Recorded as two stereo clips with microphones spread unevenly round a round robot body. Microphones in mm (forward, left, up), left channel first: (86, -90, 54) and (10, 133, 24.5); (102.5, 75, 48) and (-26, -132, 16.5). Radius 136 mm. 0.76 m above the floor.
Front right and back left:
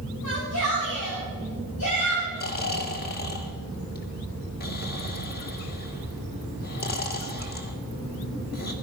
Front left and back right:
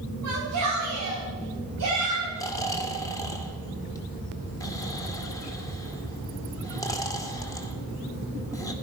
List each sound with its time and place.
0.2 s a shout: 110° right, 6 m
2.4 s snoring: 20° right, 2 m